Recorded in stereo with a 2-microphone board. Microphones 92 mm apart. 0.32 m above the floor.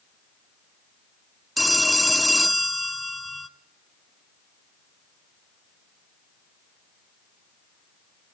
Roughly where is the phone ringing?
Centre.